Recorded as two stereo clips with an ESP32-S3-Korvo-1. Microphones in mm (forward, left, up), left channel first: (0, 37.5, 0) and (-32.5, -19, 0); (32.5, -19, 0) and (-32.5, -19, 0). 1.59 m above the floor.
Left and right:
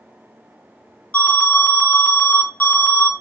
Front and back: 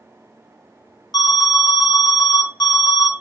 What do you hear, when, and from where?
1.1 s an alarm: 5° right, 0.6 m